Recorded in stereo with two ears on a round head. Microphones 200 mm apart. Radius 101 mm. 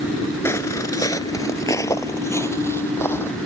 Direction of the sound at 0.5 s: 10° left (ahead or behind).